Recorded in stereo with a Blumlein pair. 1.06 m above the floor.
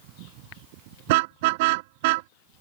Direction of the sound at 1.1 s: 50° right.